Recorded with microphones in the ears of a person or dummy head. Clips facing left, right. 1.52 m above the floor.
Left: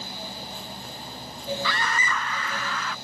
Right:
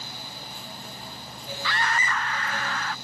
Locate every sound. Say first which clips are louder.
1.6 s a scream: even; 75° left (ahead or behind); by 3.0 s 60° left (ahead or behind)